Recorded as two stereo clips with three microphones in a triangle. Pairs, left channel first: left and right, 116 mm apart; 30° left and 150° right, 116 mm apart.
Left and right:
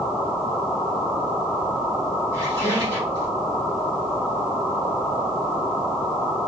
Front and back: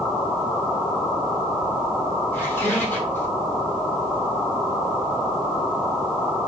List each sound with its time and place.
2.3 s a squeak: 40° right, 2.5 m